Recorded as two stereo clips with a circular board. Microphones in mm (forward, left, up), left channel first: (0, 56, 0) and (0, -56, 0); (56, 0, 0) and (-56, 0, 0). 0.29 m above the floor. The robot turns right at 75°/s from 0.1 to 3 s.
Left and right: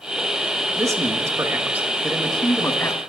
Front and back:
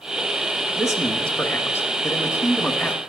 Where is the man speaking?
105° right, 1.0 m; by 3.0 s 60° left, 1.0 m.